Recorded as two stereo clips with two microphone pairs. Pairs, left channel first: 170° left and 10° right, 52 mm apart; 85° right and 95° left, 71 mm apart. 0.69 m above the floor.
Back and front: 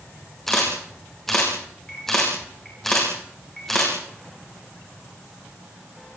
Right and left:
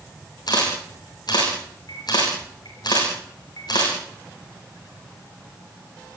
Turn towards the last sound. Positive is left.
turn(degrees=-105)